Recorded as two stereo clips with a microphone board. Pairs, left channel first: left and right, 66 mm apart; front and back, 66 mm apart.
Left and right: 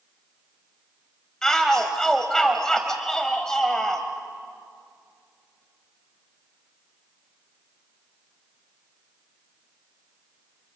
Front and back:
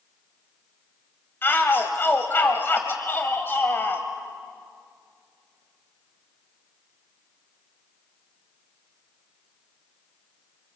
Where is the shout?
15° left, 1.3 m.